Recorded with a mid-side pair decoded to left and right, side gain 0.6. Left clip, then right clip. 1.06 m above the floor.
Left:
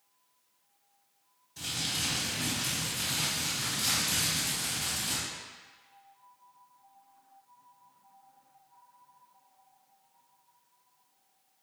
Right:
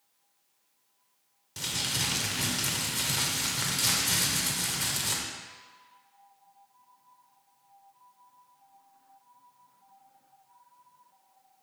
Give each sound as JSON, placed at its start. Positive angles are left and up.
{"t": 1.6, "sound": "crumpling", "azimuth_deg": -60, "distance_m": 1.9}